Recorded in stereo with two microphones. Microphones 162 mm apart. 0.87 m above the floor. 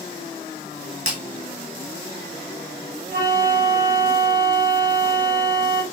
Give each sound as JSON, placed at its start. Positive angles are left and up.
{"t": 1.1, "sound": "breaking glass", "side_deg": -55, "distance_m": 1.7}
{"t": 3.1, "sound": "a flute", "side_deg": -65, "distance_m": 2.0}